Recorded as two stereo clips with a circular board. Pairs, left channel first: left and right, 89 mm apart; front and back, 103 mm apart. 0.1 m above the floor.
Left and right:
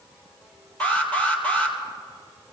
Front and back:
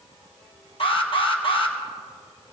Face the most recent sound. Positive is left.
turn(degrees=20)